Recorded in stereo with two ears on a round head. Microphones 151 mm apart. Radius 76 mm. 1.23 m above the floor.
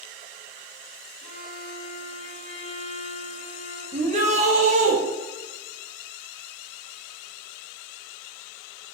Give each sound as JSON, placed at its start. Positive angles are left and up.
{"t": 1.2, "sound": "a violin", "side_deg": 40, "distance_m": 3.0}
{"t": 3.9, "sound": "a shout", "side_deg": -45, "distance_m": 2.5}